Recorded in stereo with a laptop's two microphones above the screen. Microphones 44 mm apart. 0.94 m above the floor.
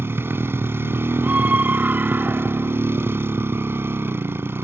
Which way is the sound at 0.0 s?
65° right (ahead or behind).